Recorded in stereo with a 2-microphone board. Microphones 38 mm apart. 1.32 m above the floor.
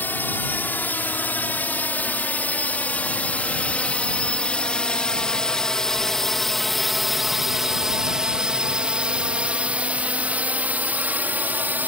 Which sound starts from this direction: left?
A drone, at 0.0 s.